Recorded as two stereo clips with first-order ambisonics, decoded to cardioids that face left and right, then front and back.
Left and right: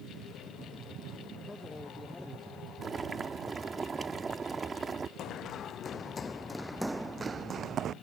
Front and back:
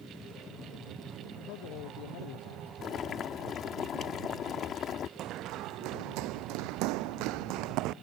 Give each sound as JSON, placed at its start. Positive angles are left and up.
{"t": 1.4, "sound": "a man speaking", "azimuth_deg": 10}
{"t": 2.8, "sound": "boiling", "azimuth_deg": -25}
{"t": 5.2, "sound": "running footsteps", "azimuth_deg": 135}